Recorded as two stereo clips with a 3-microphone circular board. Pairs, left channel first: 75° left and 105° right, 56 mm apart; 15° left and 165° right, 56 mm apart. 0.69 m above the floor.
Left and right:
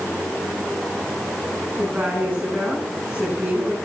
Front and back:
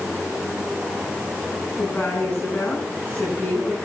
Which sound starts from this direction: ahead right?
A woman speaking, at 1.8 s.